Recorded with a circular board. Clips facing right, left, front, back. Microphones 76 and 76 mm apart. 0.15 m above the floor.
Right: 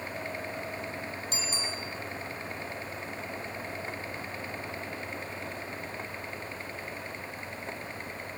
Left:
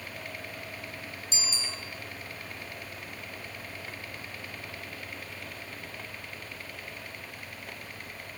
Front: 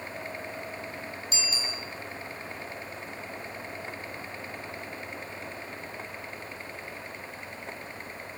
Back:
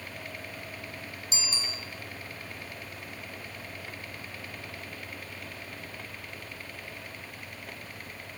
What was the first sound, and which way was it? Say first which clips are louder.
A bicycle bell: left 1 dB, front 1 dB; 125° right.